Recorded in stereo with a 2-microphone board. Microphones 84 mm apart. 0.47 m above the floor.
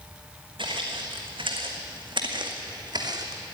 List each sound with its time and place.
0.6 s footsteps: 75° right (ahead or behind), 2.5 m; by 3.4 s 50° right (ahead or behind), 1.8 m